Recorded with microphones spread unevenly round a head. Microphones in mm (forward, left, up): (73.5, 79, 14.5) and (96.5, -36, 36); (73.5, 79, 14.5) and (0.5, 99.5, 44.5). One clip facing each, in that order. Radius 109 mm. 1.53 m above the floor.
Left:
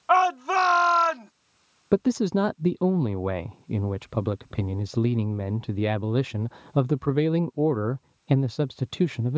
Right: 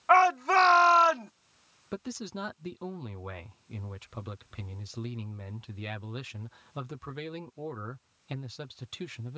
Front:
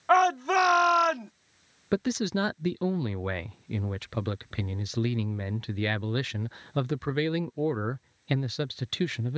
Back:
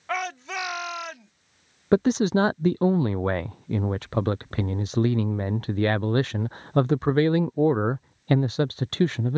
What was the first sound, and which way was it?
A shout, 25° left.